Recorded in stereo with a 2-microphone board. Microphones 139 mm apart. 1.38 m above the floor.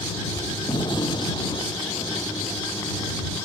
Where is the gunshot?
35° left (ahead or behind).